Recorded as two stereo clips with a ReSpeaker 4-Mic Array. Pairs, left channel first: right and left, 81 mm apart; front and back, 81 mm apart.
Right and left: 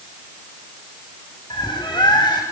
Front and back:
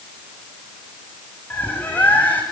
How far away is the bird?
About 7 m.